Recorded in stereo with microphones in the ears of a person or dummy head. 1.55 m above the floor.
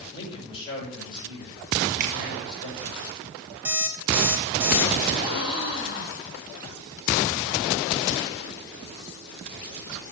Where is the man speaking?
30° left (ahead or behind), 5.5 m.